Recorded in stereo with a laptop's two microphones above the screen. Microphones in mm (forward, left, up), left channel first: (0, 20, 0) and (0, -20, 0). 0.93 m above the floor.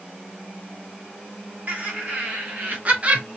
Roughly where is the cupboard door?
I don't hear a cupboard door.